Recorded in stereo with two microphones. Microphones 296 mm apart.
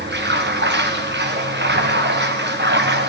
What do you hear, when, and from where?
0.0 s running water: 35° right (ahead or behind), 1.8 m